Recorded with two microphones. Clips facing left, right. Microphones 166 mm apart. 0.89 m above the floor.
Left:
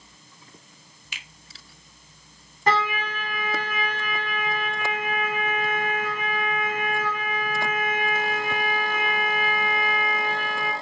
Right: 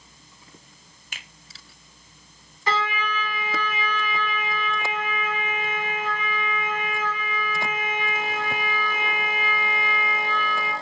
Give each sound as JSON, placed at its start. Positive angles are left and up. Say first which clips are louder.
{"t": 1.1, "sound": "a finger snap", "louder": "right 1 dB", "side_deg": -45, "distance_m": 0.9}
{"t": 2.7, "sound": "a trumpet", "louder": "left 2 dB", "side_deg": 50, "distance_m": 1.7}